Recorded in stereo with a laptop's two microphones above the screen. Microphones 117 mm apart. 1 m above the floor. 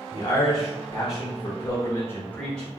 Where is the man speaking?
30° left (ahead or behind), 1.2 m; by 2.7 s 5° left (ahead or behind), 0.9 m.